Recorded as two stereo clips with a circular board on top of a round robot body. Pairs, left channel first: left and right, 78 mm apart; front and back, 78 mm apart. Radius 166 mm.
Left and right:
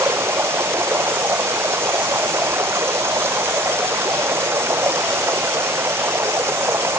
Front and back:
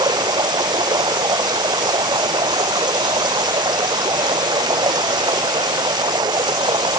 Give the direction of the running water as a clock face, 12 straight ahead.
5 o'clock.